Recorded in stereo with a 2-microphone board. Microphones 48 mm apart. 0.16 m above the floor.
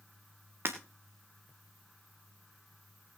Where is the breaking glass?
55° right (ahead or behind), 2.5 m.